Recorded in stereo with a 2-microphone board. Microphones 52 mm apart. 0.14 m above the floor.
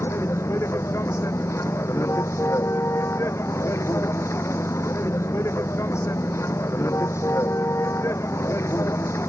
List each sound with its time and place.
0.0 s a vehicle: 65° left (ahead or behind)